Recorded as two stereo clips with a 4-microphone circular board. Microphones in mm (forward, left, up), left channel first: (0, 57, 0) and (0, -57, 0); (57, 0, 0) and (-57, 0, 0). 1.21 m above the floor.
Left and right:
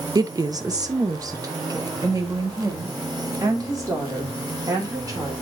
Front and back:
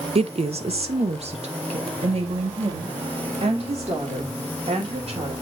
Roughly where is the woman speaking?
Behind right.